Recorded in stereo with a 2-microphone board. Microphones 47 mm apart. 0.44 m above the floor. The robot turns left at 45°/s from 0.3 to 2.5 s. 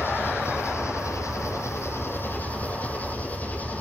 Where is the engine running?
130° left, 5.5 m; by 3.8 s 30° left, 5.5 m.